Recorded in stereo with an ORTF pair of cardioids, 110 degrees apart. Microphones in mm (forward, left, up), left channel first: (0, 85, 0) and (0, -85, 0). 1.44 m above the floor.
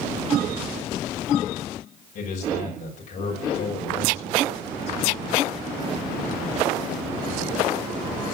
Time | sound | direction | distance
2.1 | a man speaking | 50° left | 6 m